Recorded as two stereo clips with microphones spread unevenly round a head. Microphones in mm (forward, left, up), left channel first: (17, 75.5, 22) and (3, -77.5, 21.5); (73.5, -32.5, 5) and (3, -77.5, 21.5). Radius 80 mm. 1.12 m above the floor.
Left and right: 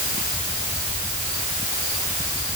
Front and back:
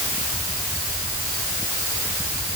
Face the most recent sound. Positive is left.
No sound to turn to.